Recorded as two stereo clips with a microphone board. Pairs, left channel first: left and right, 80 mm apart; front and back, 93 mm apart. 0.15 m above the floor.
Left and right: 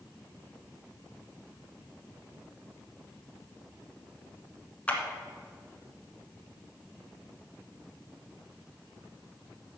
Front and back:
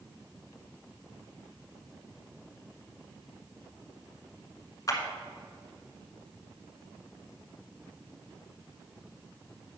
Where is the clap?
25° left, 1.2 m.